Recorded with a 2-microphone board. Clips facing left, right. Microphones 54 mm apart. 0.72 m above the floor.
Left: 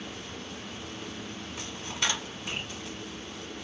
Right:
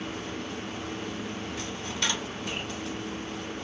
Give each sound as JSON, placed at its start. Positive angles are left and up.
{"t": 1.6, "sound": "a dropped coin", "side_deg": 20, "distance_m": 0.9}